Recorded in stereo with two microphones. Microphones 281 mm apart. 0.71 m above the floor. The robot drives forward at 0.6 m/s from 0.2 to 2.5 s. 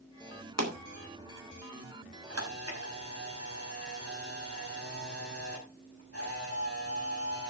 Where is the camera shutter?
60° right (ahead or behind), 5 m; by 7.5 s 55° right (ahead or behind), 5 m.